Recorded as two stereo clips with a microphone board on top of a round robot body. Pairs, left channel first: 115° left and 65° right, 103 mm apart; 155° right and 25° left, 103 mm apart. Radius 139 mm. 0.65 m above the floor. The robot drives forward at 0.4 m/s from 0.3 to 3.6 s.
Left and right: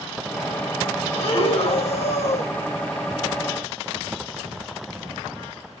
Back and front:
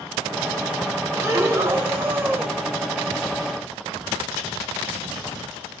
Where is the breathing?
85° left, 3.5 m; by 2.6 s 95° left, 3.5 m.